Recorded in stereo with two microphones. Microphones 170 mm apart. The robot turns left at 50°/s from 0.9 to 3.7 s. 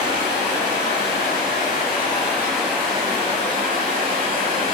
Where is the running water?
85° left, 1.7 m; by 4.7 s 55° right, 1.7 m.